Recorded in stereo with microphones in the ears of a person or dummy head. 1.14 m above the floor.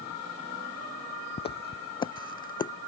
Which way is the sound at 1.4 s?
30° left (ahead or behind).